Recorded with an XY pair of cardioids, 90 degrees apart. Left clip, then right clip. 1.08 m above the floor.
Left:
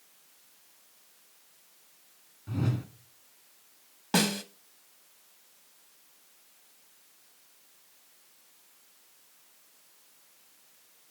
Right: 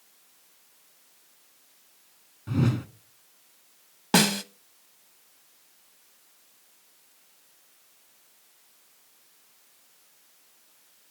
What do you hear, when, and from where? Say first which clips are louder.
2.5 s a whoosh: right 6 dB; 55° right, 1.1 m
4.1 s a snare drum: right 5 dB; 50° right, 0.7 m